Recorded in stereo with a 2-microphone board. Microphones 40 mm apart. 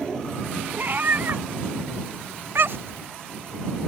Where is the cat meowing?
45° right (ahead or behind); by 3.0 s 60° right (ahead or behind).